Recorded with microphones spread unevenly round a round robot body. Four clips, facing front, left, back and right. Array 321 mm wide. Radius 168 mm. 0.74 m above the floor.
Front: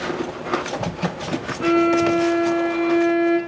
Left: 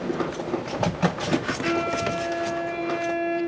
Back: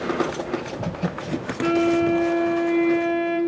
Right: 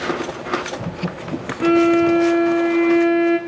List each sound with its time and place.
1.6 s a violin: 105° right, 1.9 m